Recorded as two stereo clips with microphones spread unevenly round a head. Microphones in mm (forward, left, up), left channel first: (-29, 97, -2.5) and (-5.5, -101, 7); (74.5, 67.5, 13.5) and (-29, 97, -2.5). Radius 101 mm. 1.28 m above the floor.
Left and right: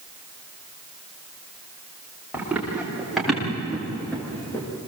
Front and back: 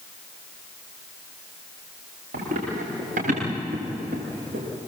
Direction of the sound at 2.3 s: 165° right.